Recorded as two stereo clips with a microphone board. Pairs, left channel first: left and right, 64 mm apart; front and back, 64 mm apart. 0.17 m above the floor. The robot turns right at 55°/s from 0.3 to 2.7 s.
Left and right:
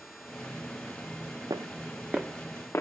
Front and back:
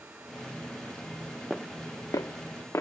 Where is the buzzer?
No buzzer in this recording.